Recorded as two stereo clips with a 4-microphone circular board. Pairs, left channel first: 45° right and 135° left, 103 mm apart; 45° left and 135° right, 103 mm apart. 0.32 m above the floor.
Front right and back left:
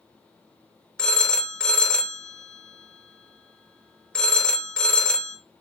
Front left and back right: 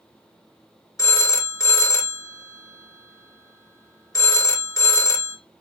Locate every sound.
1.0 s a phone ringing: 30° left, 0.5 m